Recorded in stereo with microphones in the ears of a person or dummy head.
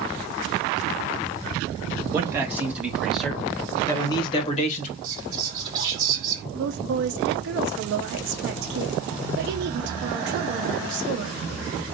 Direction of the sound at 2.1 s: 20° right (ahead or behind).